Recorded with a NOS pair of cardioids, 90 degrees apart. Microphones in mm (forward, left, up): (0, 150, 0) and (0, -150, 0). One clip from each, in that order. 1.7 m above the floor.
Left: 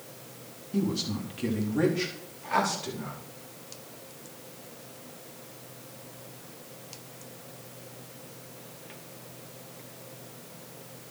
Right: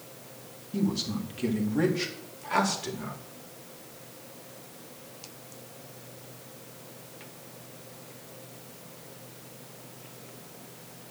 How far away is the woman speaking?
About 3.5 m.